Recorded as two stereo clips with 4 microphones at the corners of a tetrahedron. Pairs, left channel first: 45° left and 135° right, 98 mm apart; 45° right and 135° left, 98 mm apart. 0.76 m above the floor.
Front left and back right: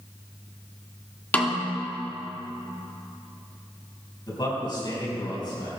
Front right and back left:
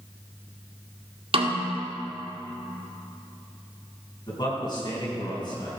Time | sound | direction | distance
1.3 | a snare drum | 120° left | 1.9 m
4.3 | a man speaking | straight ahead | 4.5 m